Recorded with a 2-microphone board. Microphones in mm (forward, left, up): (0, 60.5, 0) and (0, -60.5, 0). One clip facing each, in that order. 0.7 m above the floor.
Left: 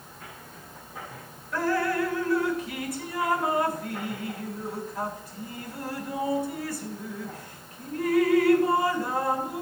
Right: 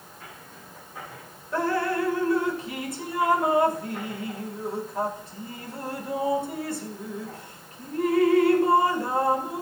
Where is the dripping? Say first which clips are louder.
Right 1 dB; 25° right (ahead or behind), 1.0 m.